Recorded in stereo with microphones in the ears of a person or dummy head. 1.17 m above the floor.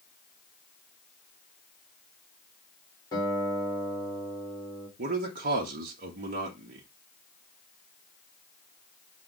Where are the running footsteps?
No running footsteps in this recording.